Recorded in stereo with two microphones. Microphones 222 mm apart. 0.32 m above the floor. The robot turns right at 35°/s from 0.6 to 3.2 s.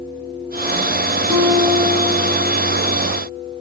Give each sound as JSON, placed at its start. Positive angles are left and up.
{"t": 1.3, "sound": "a guitar", "azimuth_deg": -10, "distance_m": 4.0}